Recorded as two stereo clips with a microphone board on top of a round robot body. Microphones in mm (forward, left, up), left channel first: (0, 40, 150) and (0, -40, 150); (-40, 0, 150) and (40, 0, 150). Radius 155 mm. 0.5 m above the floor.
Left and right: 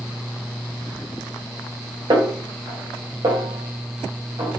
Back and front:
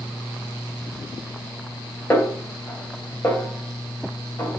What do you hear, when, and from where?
2.1 s a snare drum: 115° right, 1.8 m